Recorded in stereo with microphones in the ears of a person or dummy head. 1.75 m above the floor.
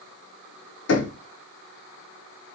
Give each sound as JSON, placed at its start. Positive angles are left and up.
{"t": 0.9, "sound": "knocking", "side_deg": 80, "distance_m": 2.5}